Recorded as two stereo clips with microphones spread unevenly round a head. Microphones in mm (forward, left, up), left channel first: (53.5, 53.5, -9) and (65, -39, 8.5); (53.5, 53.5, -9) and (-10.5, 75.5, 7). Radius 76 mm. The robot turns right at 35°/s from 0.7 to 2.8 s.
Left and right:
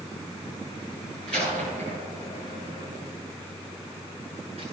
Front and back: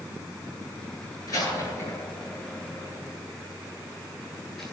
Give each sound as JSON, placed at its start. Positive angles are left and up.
{"t": 1.3, "sound": "a door slam", "azimuth_deg": -135, "distance_m": 10.0}